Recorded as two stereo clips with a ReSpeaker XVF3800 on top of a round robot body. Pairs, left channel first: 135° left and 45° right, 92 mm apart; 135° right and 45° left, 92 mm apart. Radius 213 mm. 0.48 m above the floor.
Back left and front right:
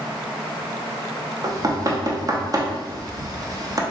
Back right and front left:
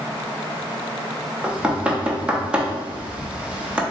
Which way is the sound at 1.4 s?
30° right.